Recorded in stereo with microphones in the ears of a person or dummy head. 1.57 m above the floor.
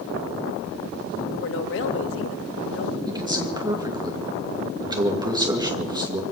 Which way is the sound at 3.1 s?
25° right (ahead or behind).